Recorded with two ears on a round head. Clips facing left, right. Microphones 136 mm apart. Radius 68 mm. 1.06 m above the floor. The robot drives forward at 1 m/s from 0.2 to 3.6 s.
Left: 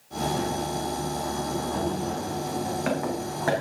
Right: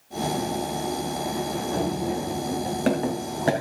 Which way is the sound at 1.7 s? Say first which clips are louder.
Right 2 dB; 55° right (ahead or behind).